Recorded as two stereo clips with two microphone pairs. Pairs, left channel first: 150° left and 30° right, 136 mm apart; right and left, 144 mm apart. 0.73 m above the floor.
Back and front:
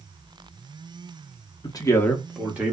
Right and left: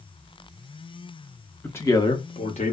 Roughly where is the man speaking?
Behind.